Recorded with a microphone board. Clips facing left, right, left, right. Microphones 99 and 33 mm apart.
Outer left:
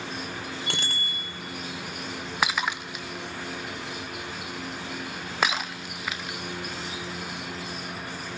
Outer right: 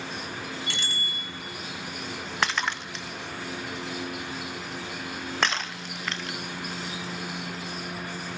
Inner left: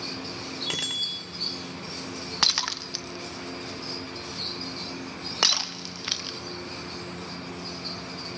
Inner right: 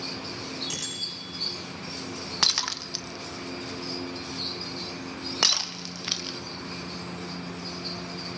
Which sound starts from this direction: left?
A bicycle bell, at 0.7 s.